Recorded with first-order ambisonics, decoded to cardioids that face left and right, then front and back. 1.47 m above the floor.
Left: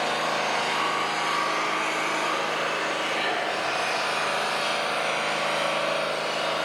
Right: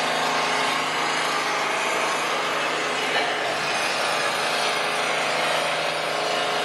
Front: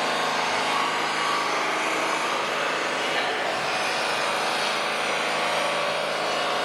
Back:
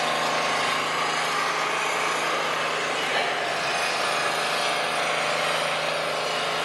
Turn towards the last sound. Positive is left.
turn(degrees=-125)